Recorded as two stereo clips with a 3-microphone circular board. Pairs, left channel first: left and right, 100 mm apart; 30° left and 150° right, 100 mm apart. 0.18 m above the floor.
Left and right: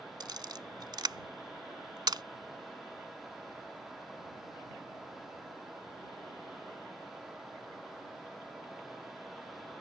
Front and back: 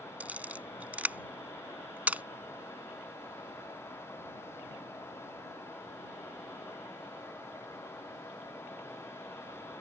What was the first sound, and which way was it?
A camera shutter, 80° right.